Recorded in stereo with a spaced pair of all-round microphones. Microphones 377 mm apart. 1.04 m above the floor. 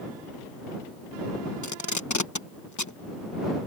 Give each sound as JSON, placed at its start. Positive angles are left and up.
{"t": 1.6, "sound": "tape being pulled", "side_deg": 50}